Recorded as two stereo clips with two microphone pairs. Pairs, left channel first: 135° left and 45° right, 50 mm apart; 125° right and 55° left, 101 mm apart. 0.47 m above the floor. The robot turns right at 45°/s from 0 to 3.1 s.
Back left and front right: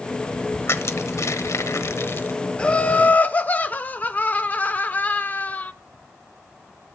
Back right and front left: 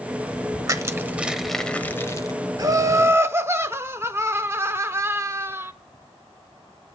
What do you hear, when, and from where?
0.7 s crushing: 105° left, 1.0 m; by 2.4 s 175° right, 1.0 m
2.6 s laughter: 80° left, 0.9 m; by 5.7 s 100° left, 0.9 m